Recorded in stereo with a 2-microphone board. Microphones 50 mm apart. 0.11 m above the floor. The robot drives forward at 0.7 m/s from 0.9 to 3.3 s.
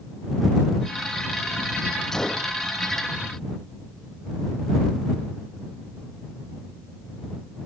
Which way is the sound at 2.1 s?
10° left (ahead or behind).